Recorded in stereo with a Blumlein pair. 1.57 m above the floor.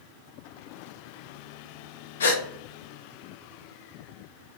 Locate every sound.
2.2 s a gasp: 65° left, 0.5 m